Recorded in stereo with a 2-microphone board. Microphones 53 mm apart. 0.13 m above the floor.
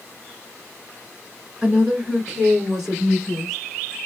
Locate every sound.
1.6 s a woman speaking: 15° right (ahead or behind), 1.8 m; by 3.6 s 5° right (ahead or behind), 3 m